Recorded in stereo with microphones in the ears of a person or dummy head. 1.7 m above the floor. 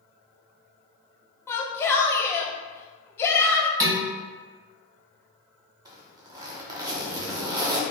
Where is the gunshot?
No gunshot in this recording.